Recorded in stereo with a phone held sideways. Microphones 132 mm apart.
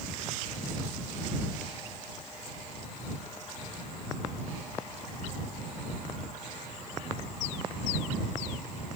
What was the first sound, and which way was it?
Only background noise.